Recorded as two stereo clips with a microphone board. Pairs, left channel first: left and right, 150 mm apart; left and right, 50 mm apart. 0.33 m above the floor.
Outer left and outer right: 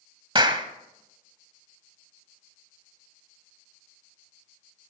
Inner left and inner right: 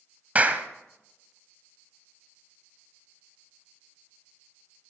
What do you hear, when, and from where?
0.3 s a clap: 35° right (ahead or behind), 1.2 m